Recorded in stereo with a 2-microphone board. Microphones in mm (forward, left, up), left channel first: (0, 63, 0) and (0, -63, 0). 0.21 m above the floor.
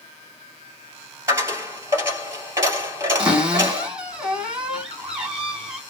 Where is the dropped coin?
25° right (ahead or behind), 1.9 m.